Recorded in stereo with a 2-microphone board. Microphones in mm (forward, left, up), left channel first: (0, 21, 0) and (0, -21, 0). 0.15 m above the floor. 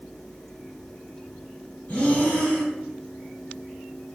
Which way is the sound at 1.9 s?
30° left (ahead or behind).